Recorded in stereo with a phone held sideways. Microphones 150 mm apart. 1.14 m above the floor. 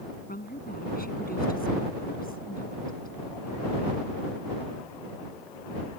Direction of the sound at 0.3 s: 80° left.